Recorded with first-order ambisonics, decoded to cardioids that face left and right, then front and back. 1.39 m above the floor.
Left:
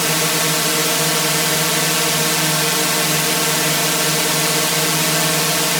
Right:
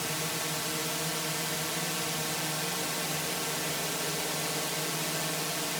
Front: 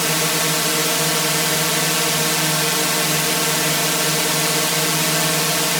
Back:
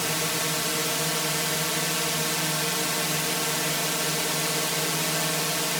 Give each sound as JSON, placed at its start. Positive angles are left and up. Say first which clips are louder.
{"t": 0.0, "sound": "a drone", "louder": "left 15 dB, front 8 dB", "azimuth_deg": 60}